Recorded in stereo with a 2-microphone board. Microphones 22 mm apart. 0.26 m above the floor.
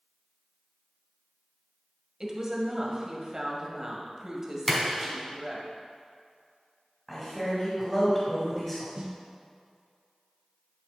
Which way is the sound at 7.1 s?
5° left (ahead or behind).